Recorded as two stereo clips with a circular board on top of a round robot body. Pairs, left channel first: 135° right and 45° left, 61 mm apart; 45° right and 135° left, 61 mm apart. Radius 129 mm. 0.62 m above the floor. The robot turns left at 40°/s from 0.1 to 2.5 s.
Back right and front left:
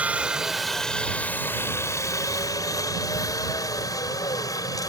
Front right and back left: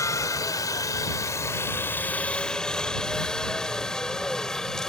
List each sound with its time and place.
0.0 s a helicopter: 25° right; by 4.9 s 125° right